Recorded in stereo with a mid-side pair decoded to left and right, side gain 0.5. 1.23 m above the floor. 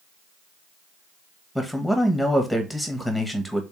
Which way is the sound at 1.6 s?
Straight ahead.